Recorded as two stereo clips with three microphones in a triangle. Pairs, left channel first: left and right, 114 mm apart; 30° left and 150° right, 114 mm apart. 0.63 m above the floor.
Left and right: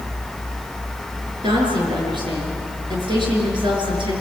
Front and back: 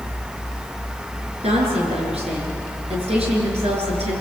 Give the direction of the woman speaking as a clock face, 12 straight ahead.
4 o'clock.